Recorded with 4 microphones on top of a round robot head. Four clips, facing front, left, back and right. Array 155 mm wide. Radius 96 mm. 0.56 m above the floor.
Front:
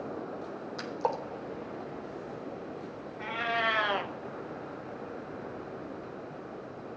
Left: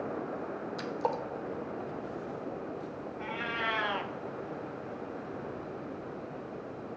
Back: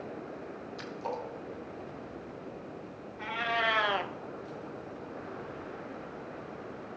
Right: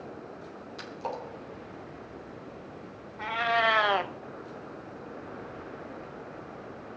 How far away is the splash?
About 1.4 m.